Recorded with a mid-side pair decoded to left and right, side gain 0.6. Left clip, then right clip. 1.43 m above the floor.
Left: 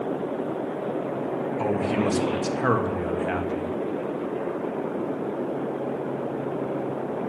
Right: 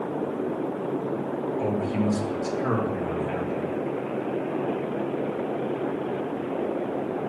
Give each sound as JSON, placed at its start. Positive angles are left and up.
{"t": 1.6, "sound": "a man speaking", "azimuth_deg": 65, "distance_m": 1.3}